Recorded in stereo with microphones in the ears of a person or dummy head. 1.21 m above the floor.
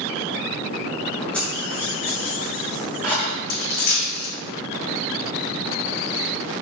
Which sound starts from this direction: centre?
Keys jangling, at 1.3 s.